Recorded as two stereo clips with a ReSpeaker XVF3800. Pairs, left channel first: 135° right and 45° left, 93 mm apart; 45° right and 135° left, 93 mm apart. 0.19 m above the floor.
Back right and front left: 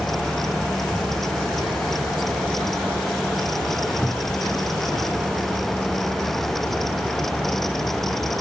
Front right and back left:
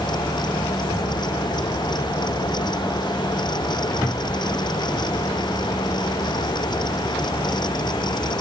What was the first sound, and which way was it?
Only background noise.